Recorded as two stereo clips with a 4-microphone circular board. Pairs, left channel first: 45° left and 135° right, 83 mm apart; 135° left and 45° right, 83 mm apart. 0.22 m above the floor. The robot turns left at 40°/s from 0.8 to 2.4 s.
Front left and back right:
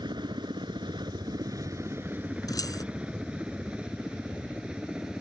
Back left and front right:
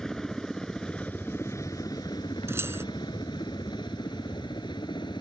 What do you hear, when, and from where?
0.0 s a helicopter: 140° right; by 5.2 s 145° left
2.5 s keys jangling: 10° left